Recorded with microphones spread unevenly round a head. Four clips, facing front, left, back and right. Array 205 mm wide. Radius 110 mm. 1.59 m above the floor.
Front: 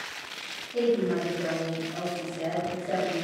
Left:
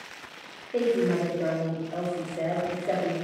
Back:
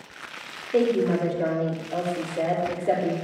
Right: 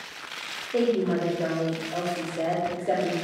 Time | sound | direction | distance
0.7 | a woman speaking | 170° right | 4.5 m